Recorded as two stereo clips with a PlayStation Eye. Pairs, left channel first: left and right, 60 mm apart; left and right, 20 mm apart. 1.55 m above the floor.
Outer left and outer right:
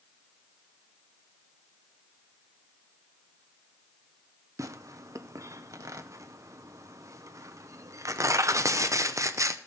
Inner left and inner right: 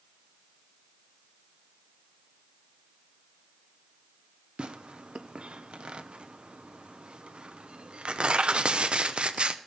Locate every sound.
4.6 s tearing paper: 60° right (ahead or behind), 0.6 m